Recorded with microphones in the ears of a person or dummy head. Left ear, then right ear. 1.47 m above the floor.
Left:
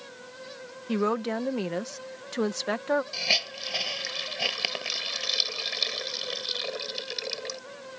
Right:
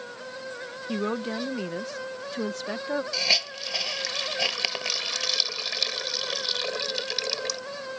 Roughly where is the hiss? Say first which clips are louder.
Right 3 dB; right.